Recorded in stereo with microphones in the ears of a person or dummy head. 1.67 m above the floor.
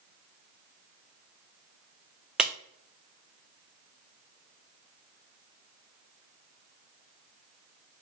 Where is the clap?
5° right (ahead or behind), 0.5 m.